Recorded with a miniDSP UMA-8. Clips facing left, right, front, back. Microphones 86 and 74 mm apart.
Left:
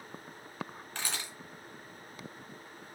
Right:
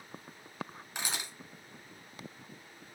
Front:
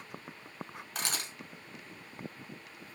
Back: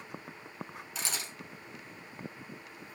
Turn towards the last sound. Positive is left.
turn(degrees=-15)